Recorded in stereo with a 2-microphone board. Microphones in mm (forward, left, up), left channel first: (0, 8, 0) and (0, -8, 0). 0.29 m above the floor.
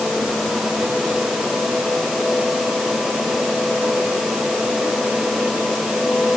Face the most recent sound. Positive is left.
No sound to turn to.